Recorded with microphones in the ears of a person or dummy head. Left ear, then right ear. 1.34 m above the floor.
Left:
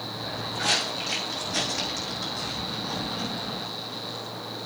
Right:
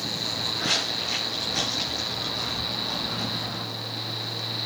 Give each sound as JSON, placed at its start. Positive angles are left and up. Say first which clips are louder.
{"t": 0.2, "sound": "footsteps", "louder": "left 1 dB", "side_deg": 45, "distance_m": 5.5}